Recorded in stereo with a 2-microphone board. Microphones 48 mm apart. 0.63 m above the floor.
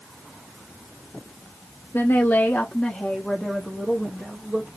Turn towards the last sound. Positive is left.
turn(degrees=-20)  # may be behind; listen again after turning